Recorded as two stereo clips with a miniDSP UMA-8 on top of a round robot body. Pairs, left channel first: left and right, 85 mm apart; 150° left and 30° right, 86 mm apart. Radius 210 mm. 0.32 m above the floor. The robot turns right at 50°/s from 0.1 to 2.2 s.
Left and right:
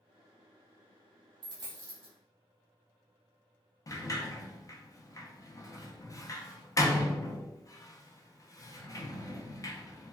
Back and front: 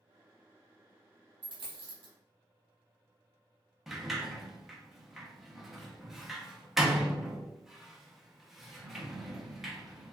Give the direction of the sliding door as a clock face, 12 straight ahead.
10 o'clock.